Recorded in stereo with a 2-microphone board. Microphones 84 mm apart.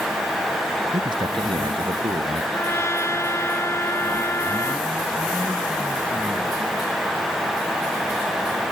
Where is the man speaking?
65° right (ahead or behind); by 2.4 s 70° right (ahead or behind).